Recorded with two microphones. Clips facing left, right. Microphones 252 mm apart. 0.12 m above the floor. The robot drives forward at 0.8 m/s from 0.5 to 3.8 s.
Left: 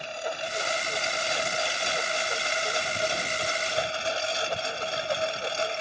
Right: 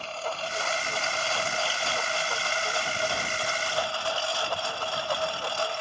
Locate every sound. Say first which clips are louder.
0.0 s a lawn mower: left 1 dB; 15° left (ahead or behind); by 5.8 s 20° left (ahead or behind)